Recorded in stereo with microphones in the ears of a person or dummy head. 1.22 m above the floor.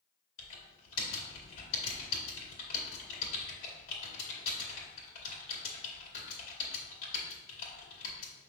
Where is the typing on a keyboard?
50° left (ahead or behind), 2.5 m.